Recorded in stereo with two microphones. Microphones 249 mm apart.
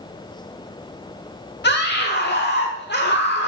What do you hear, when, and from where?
1.6 s a scream: 45° left (ahead or behind), 1.3 m